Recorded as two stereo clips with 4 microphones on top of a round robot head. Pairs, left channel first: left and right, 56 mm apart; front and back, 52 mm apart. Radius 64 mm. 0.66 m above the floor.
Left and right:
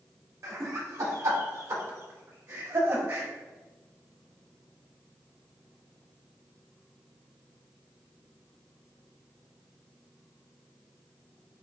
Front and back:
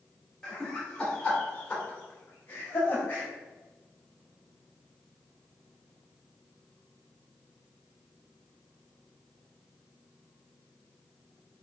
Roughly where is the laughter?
Right.